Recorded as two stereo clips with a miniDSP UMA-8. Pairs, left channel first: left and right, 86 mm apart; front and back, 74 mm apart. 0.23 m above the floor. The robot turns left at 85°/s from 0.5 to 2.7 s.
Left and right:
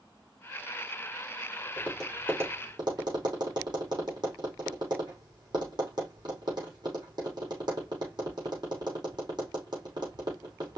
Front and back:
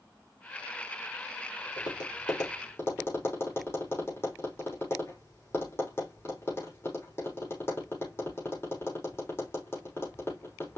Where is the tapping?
20° left, 5.5 m; by 10.8 s 55° right, 5.5 m.